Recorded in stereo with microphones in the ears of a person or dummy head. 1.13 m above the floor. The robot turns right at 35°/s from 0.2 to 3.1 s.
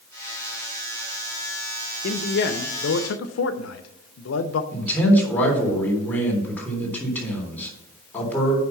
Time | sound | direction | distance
2.0 | a man speaking | 50° left | 0.8 m
4.7 | a man speaking | 10° left (ahead or behind) | 3.5 m